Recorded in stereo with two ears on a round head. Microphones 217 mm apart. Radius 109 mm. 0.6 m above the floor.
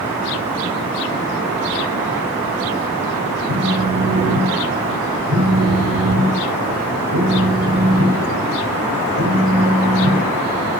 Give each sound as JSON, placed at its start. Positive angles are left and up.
{"t": 3.5, "sound": "a phone buzzing", "side_deg": -70, "distance_m": 2.5}